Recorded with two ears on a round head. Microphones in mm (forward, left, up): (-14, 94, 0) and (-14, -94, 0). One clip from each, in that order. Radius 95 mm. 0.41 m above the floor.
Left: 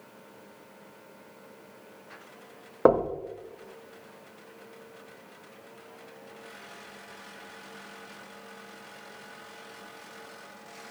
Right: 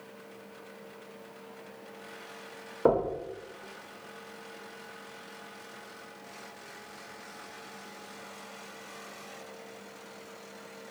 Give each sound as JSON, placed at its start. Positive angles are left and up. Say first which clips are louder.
{"t": 2.9, "sound": "knocking", "louder": "left 4 dB", "side_deg": 40, "distance_m": 0.5}